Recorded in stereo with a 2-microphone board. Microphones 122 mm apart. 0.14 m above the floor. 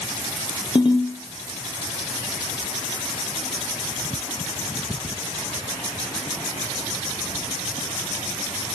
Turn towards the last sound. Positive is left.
turn(degrees=45)  # may be behind; listen again after turning